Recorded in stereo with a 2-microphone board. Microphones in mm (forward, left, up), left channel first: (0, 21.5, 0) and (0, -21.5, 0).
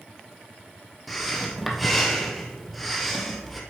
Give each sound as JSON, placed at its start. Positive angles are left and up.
{"t": 1.1, "sound": "breathing", "side_deg": 0, "distance_m": 1.2}